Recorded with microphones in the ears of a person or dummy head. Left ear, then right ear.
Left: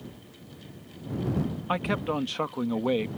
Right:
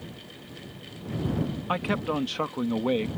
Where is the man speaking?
10° left (ahead or behind).